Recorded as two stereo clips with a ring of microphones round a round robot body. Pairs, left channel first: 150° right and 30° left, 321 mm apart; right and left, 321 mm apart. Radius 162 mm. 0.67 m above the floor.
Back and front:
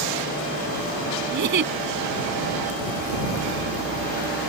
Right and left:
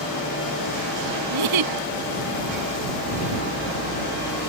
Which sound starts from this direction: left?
A giggle, at 1.3 s.